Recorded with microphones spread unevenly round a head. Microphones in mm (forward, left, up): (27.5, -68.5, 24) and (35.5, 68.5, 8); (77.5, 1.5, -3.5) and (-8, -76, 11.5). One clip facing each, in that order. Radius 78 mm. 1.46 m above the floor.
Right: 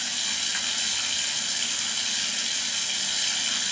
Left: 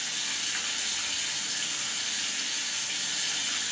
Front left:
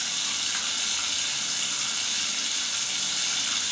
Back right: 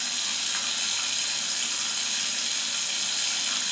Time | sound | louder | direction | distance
0.0 | running water | right 3 dB, front left 1 dB | 45° right | 2 m